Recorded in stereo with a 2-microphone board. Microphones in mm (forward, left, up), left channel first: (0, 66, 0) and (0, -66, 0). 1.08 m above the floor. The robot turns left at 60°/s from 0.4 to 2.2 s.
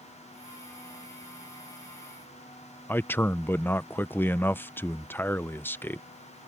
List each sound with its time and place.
2.9 s a man speaking: 15° left (ahead or behind)